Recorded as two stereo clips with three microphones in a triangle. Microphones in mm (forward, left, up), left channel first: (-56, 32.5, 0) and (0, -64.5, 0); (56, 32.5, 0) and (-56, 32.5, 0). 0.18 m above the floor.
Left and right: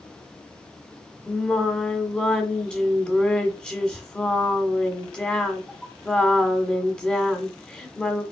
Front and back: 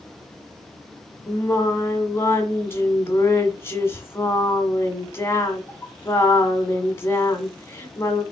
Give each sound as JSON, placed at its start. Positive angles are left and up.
{"t": 1.3, "sound": "singing", "azimuth_deg": 45, "distance_m": 1.6}